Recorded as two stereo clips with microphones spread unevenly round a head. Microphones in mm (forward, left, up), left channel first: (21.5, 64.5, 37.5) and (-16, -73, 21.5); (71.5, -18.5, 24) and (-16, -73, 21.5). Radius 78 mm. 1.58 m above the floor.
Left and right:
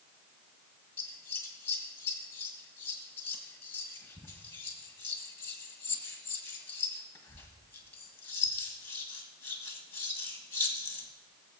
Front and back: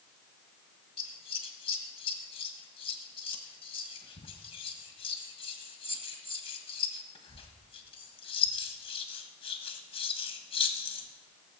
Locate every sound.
1.0 s scissors: 5° left, 1.4 m